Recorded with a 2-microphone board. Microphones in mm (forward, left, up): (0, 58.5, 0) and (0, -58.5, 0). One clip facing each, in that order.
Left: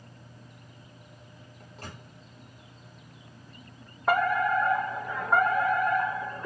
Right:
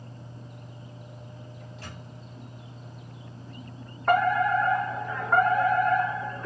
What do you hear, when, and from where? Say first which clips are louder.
1.6 s a microwave: left 2 dB; 45° left (ahead or behind), 4 m
4.1 s a fire alarm: right 3 dB; 5° left (ahead or behind), 3 m